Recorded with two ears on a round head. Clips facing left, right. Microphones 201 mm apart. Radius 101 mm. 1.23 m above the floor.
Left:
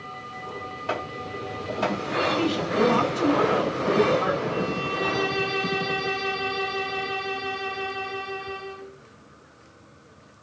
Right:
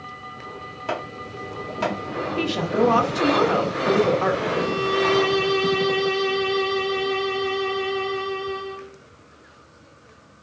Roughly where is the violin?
Right.